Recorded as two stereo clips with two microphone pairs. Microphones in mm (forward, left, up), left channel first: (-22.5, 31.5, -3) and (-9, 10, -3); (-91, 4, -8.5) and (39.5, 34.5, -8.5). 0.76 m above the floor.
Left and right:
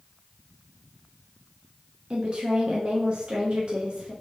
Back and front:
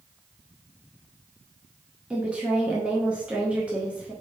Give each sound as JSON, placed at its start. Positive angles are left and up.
{"t": 2.1, "sound": "a woman speaking", "azimuth_deg": -65, "distance_m": 0.9}